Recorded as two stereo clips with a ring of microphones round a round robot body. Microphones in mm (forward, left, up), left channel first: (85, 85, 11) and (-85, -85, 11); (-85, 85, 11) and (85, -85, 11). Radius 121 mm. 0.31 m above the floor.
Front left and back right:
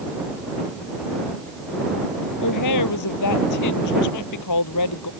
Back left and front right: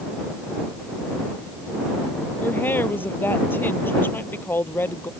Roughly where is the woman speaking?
Ahead left.